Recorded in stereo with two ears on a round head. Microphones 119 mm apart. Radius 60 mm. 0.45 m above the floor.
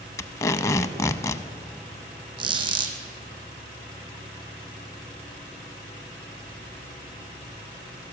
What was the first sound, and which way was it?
Tape being pulled, 25° left (ahead or behind).